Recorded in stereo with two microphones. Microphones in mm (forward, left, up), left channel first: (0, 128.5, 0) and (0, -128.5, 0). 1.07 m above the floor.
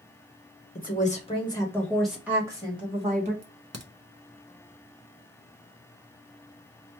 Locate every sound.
0.8 s a woman speaking: 35° left (ahead or behind), 1.3 m; by 3.3 s 25° right (ahead or behind), 1.7 m
3.4 s a crack: 80° right, 0.6 m